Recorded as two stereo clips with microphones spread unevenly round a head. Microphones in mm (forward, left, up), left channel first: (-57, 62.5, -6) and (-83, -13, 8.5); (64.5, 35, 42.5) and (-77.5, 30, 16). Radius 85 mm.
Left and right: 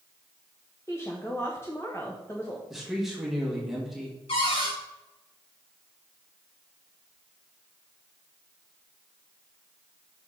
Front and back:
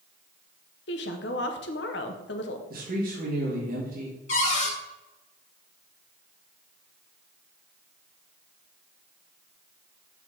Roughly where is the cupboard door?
Ahead left.